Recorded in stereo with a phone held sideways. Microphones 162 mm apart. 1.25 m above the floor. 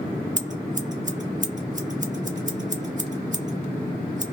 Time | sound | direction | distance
0.4 | scissors | 50° right (ahead or behind) | 0.7 m